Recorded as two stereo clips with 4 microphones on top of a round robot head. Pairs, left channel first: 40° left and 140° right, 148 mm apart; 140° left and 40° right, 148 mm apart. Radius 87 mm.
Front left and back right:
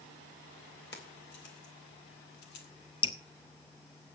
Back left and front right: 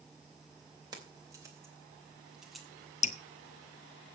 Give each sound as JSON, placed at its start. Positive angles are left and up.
{"t": 0.9, "sound": "keys jangling", "azimuth_deg": 30, "distance_m": 3.5}
{"t": 3.0, "sound": "dripping", "azimuth_deg": 95, "distance_m": 1.0}